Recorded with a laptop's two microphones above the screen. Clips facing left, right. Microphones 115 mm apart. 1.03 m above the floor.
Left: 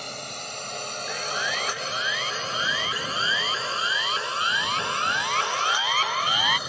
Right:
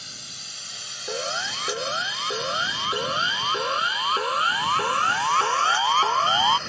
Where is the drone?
65° left (ahead or behind); by 6.7 s 10° left (ahead or behind).